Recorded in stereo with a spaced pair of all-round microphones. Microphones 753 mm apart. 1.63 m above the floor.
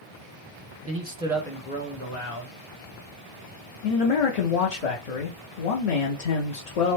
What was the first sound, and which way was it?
A man speaking, 20° right (ahead or behind).